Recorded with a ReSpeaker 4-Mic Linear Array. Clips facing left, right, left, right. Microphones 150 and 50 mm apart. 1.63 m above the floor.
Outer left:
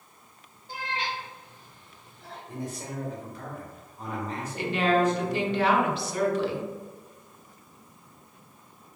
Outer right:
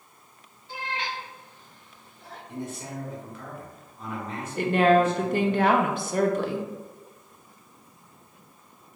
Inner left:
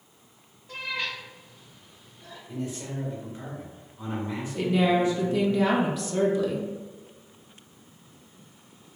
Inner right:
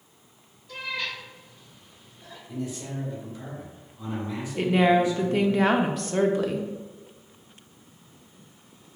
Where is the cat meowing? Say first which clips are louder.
Even, even; 40° left (ahead or behind), 1.2 m; by 2.4 s 5° right (ahead or behind), 2 m.